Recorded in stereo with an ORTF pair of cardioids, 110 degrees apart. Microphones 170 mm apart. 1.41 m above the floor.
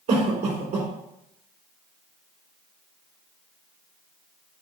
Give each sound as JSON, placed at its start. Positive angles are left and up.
{"t": 0.1, "sound": "a cough", "azimuth_deg": -65, "distance_m": 2.0}